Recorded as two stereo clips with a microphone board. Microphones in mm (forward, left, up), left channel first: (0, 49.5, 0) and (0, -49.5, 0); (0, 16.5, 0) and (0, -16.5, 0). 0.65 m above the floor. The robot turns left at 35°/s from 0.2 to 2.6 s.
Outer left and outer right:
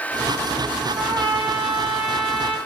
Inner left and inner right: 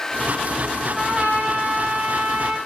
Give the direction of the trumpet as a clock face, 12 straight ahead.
2 o'clock.